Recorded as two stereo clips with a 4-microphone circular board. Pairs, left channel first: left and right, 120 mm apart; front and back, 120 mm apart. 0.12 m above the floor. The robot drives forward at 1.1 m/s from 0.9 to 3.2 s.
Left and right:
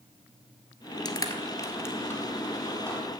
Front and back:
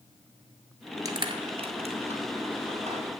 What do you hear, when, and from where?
1.1 s crushing: 130° left, 1.0 m; by 3.1 s 170° left, 3 m